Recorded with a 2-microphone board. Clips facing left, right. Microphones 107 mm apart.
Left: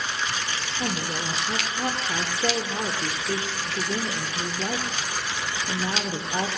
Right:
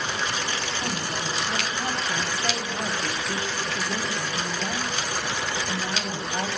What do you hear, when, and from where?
0.8 s a woman speaking: 45° left (ahead or behind), 2.0 m